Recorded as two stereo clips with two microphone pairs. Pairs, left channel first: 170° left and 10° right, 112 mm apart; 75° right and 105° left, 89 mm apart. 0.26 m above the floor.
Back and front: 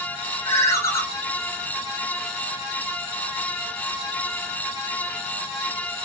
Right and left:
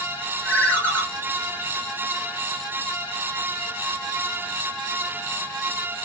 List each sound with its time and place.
0.5 s a ringtone: 140° right, 0.9 m